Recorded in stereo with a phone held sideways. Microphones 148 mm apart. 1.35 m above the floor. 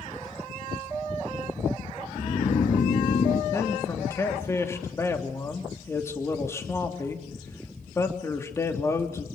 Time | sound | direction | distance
2.1 | snoring | 60° left (ahead or behind) | 1.4 m
3.5 | a man speaking | 20° left (ahead or behind) | 3 m